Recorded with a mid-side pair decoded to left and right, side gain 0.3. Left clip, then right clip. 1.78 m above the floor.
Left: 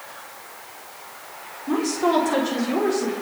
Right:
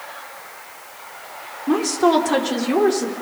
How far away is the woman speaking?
About 6 m.